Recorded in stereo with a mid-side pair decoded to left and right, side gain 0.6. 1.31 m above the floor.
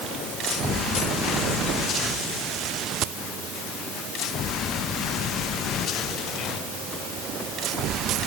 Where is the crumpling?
No crumpling in this recording.